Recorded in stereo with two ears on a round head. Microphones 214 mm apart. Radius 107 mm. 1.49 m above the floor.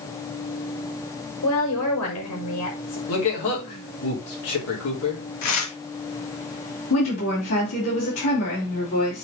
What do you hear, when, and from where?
1.4 s a woman speaking: 85° left, 4.5 m
3.1 s a man speaking: 70° left (ahead or behind), 3.5 m
5.4 s tearing paper: 80° left, 1.9 m
6.9 s a woman speaking: 60° left (ahead or behind), 4 m